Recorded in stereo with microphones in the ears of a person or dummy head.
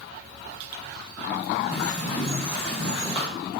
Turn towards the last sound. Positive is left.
turn(degrees=-10)  # may be behind; listen again after turning